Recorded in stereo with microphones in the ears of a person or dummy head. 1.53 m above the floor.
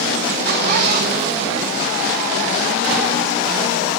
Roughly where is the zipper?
Right.